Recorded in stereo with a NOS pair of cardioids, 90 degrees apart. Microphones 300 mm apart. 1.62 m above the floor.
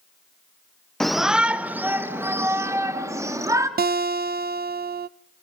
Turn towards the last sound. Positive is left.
turn(degrees=-30)